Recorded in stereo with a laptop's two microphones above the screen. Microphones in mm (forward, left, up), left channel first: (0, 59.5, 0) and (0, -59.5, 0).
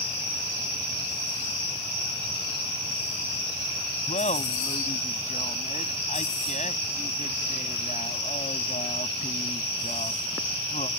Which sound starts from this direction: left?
Laughter, at 4.1 s.